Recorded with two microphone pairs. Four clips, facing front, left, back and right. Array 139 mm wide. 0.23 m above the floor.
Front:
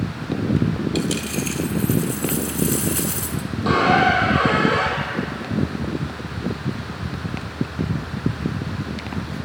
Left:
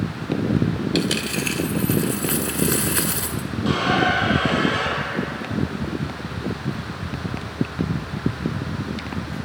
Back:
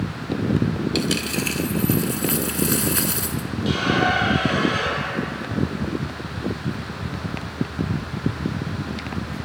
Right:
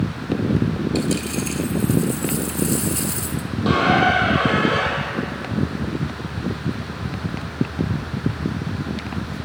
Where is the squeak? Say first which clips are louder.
Right 3 dB, front 5 dB; 35° right, 5 m.